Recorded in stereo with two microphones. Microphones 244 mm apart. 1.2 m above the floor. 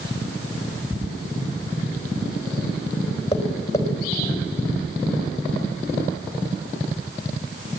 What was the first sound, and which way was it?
Tapping, 15° left (ahead or behind).